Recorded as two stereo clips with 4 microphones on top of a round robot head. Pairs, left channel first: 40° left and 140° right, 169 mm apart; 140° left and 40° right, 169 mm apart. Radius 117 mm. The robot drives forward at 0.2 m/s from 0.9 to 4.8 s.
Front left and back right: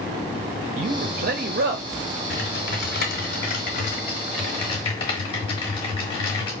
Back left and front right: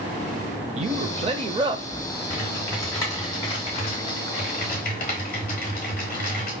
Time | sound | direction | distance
0.8 | a man speaking | 90° right | 0.7 m
2.3 | typing on a keyboard | 60° left | 1.1 m